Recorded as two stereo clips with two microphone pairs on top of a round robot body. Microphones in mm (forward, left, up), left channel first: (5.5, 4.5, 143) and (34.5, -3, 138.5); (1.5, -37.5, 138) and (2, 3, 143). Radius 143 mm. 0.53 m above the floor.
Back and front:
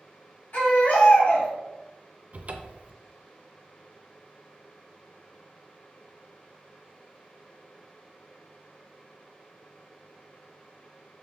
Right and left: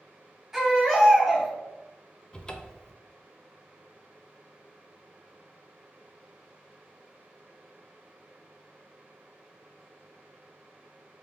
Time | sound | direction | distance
0.5 | a baby crying | 175° left | 2.0 m
2.3 | a cupboard door | 35° right | 0.5 m